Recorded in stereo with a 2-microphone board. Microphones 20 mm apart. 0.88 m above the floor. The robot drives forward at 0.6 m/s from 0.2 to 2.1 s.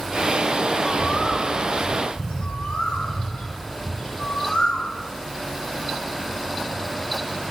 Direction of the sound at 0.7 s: 55° left (ahead or behind).